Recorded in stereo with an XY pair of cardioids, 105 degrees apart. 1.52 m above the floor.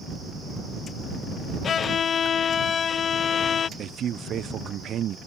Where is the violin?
55° left.